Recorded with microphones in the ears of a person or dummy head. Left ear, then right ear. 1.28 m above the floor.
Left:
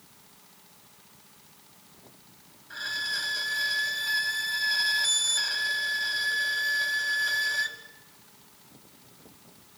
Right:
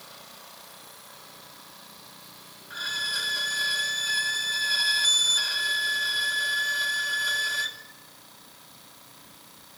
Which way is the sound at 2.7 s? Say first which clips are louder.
Right 2 dB; 15° left (ahead or behind).